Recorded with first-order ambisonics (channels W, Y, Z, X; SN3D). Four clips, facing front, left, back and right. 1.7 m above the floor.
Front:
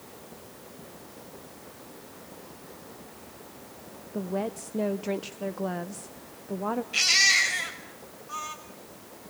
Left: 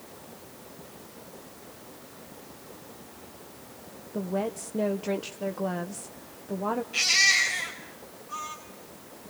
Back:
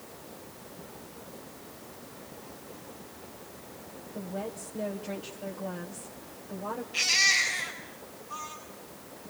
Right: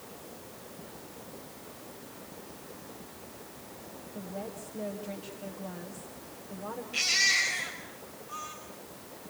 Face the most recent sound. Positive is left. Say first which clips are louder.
# left 4 dB, front 3 dB
turn(degrees=5)